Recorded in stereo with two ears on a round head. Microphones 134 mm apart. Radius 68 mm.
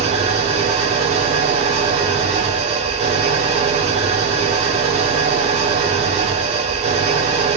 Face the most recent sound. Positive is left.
turn(degrees=-45)  # may be behind; listen again after turning